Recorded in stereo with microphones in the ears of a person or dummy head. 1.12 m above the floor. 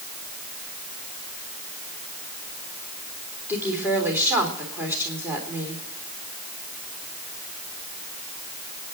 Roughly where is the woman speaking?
Centre.